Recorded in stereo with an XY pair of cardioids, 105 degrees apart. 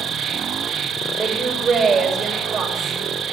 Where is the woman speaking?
50° right, 7 m.